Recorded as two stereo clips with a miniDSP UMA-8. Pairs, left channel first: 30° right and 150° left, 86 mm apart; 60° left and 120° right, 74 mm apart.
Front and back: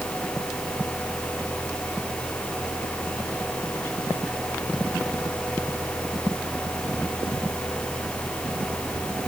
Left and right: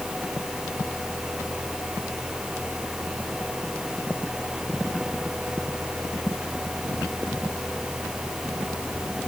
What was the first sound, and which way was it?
Only background noise.